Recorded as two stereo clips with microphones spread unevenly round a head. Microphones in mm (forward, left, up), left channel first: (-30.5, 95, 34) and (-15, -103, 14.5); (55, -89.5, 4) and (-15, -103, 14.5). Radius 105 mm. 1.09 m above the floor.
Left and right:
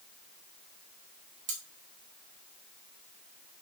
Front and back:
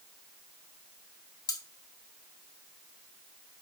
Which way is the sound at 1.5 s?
25° right.